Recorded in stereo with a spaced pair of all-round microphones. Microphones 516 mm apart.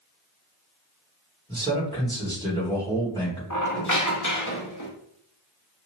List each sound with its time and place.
1.5 s a man speaking: 5° left (ahead or behind), 2 m
3.5 s a squeak: 35° left (ahead or behind), 0.9 m